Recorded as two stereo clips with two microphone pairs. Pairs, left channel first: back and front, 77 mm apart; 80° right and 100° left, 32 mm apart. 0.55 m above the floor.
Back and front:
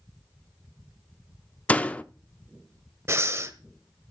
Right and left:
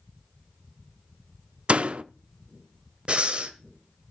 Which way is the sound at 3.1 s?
50° left.